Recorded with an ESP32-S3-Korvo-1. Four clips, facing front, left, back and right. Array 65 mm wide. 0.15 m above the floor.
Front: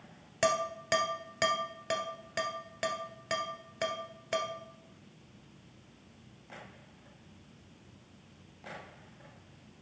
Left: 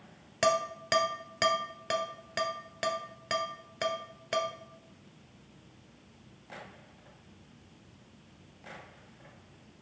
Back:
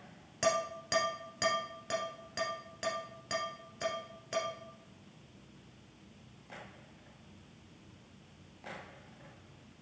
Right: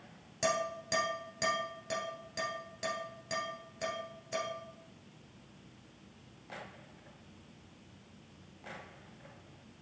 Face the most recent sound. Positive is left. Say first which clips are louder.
# left 5 dB, front 2 dB
turn(degrees=65)